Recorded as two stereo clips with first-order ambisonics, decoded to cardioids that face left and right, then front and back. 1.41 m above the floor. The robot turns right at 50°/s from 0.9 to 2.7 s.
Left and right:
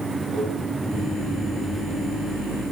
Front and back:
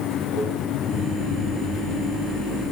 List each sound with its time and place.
0.3 s a microwave: 5° right, 8 m